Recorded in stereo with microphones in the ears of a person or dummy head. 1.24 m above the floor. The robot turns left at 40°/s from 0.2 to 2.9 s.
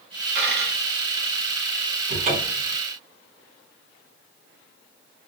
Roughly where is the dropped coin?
Right.